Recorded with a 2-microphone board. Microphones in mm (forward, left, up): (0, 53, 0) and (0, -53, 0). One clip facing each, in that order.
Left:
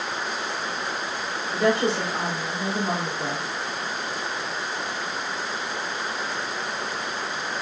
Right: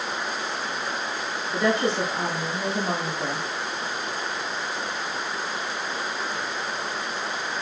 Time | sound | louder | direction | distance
1.5 | a woman speaking | left 1 dB | centre (ahead or behind) | 1.9 m